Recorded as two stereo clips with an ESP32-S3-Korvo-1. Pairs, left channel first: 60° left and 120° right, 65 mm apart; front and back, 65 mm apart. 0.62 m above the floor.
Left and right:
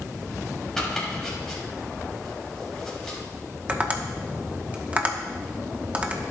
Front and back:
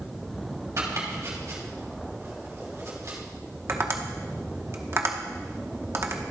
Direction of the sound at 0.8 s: 145° left.